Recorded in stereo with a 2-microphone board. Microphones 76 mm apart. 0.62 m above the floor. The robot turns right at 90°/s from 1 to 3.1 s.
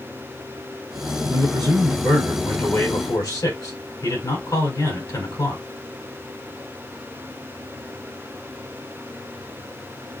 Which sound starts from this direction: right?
A man speaking, at 1.3 s.